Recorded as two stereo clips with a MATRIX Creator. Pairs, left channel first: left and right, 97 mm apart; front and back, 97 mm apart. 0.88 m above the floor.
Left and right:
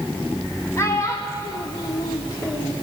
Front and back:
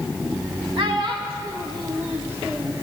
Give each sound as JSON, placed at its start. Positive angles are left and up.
{"t": 0.8, "sound": "a child speaking", "azimuth_deg": 150, "distance_m": 1.2}